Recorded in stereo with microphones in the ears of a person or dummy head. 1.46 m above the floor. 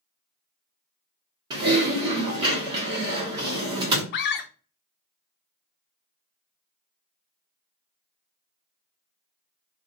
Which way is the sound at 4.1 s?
45° left (ahead or behind).